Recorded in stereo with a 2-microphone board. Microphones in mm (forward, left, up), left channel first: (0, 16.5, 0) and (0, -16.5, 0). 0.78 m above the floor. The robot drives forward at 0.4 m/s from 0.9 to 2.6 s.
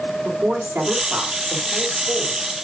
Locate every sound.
0.2 s a woman speaking: 80° right, 3 m; by 2.5 s 75° right (ahead or behind), 3.5 m